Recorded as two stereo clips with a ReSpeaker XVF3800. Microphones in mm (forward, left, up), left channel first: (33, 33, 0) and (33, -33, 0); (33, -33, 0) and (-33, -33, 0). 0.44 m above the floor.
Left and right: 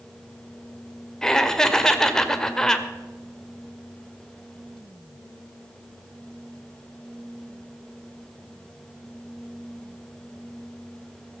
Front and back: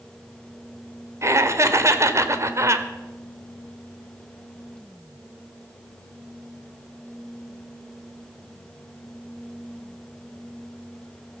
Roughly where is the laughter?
Behind.